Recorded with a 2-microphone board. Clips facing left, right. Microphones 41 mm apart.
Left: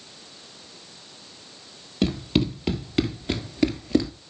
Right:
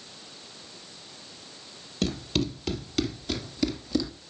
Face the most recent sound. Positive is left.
turn(degrees=45)  # may be behind; listen again after turning